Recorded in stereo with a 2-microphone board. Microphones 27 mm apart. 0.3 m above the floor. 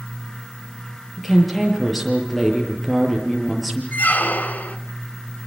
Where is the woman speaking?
Centre (ahead or behind), 7.5 m.